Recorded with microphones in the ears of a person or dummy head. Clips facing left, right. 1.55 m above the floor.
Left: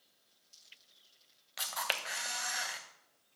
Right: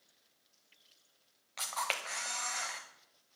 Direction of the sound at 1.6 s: 5° left (ahead or behind).